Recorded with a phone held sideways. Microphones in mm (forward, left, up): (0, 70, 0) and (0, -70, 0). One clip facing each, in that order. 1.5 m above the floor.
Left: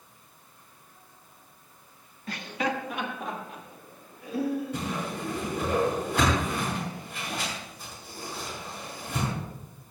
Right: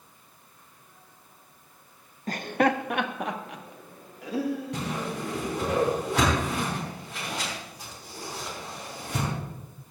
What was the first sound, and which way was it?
Laughter, 40° right (ahead or behind).